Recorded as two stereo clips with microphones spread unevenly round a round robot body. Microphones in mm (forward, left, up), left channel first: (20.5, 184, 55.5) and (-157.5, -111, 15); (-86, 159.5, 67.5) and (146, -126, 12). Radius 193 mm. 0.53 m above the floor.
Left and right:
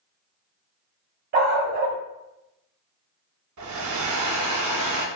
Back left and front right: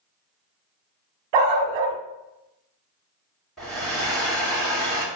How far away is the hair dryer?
About 1.9 m.